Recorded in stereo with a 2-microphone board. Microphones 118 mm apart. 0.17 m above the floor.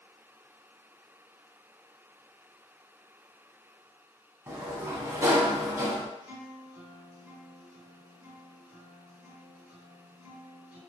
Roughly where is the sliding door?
Right.